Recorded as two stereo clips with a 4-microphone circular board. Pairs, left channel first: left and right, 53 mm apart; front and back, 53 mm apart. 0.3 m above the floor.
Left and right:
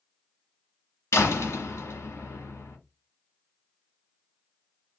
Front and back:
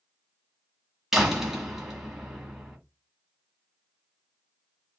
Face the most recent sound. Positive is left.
turn(degrees=100)